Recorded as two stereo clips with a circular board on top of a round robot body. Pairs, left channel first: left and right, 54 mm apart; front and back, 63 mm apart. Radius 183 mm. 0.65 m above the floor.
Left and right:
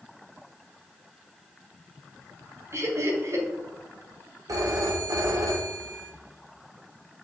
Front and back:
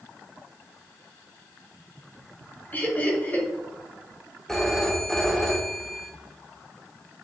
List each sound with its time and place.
2.7 s laughter: 60° right, 2.5 m
4.5 s a phone ringing: 80° right, 1.3 m